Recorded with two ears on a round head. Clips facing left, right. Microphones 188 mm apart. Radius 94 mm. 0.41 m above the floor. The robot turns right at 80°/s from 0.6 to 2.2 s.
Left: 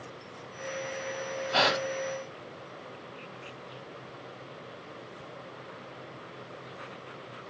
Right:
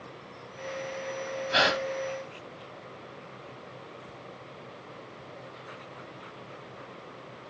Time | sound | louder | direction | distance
1.5 | a gasp | even | 25° right (ahead or behind) | 1.5 m